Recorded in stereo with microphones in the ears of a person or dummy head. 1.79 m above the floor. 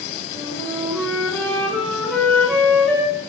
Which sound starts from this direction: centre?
A flute, at 0.3 s.